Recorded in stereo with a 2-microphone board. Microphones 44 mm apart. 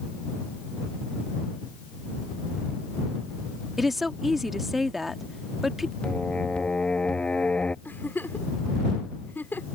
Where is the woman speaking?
Centre (ahead or behind).